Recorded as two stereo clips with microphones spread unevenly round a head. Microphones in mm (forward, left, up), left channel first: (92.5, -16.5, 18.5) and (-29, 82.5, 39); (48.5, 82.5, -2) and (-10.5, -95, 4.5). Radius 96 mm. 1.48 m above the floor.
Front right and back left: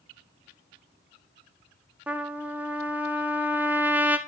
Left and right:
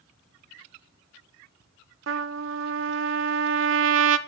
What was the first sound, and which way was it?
A trumpet, 135° right.